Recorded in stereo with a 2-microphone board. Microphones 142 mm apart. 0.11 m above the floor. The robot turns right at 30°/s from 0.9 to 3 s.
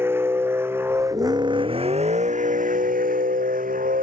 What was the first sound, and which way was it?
A vehicle, 165° right.